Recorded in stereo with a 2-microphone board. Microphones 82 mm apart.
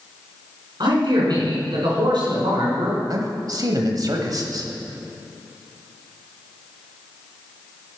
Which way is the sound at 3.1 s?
50° right (ahead or behind).